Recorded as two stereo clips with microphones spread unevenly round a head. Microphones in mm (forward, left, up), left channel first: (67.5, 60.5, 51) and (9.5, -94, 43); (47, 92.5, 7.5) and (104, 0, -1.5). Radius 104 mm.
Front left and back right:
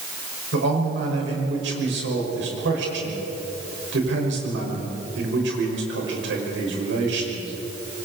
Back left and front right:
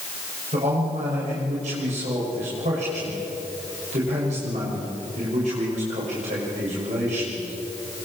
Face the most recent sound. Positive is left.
turn(degrees=-110)